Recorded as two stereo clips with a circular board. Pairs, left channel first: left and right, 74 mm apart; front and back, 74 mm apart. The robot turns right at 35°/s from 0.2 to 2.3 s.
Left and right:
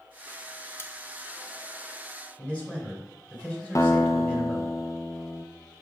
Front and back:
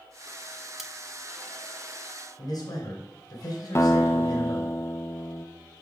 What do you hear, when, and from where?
0.8 s cutlery clinking: 100° left, 0.6 m; by 0.9 s 105° left, 0.6 m
2.4 s a man speaking: 20° left, 2.5 m
3.8 s a guitar: 55° left, 0.7 m